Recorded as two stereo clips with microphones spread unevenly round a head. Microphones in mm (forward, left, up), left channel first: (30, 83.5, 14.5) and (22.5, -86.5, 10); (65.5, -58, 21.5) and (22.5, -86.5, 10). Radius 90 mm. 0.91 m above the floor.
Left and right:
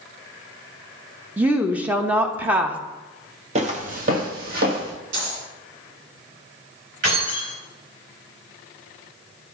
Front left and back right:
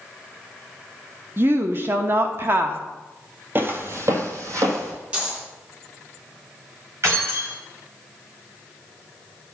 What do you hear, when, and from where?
1.4 s a woman speaking: 170° right, 0.8 m
3.5 s footsteps: 110° right, 1.0 m; by 4.9 s 135° right, 2.5 m
5.1 s a dropped coin: 80° right, 3.5 m
7.0 s keys jangling: 120° right, 4 m